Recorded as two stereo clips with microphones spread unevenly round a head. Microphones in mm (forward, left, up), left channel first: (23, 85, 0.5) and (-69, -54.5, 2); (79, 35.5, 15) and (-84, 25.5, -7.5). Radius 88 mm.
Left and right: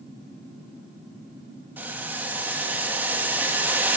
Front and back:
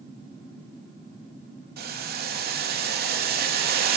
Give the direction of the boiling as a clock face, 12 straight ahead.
7 o'clock.